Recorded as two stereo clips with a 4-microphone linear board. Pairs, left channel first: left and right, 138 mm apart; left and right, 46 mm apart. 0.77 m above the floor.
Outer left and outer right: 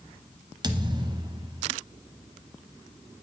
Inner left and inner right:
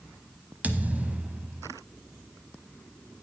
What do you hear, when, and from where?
0.6 s a thud: 35° right (ahead or behind), 0.9 m